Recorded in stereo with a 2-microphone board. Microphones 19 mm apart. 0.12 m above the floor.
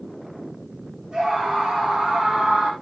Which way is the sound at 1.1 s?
55° right (ahead or behind).